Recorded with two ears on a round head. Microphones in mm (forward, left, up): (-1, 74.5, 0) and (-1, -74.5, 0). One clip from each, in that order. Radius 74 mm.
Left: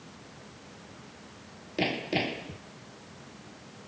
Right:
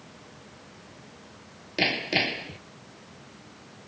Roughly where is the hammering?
Right.